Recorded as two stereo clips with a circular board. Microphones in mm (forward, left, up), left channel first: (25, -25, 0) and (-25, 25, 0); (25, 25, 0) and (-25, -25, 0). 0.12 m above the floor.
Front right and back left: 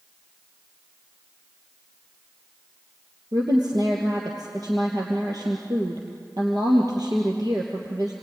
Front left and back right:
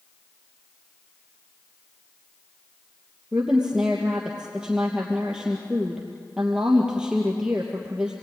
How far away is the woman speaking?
About 3 m.